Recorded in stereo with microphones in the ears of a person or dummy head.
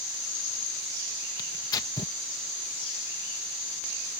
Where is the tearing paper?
20° left (ahead or behind).